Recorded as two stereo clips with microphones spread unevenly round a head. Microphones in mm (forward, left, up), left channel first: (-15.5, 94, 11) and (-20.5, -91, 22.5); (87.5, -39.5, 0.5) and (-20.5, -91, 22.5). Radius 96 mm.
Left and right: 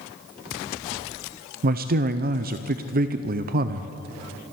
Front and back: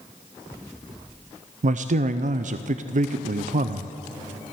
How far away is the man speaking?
About 0.5 m.